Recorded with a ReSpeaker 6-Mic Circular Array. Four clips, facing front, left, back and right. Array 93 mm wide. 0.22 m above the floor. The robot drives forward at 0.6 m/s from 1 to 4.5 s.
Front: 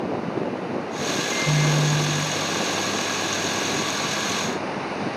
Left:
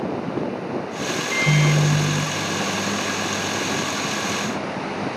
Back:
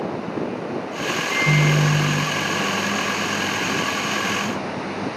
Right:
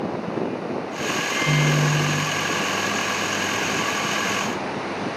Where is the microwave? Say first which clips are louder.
Left 2 dB, back 5 dB; 125° left, 1.4 m; by 5.1 s 160° left, 3 m.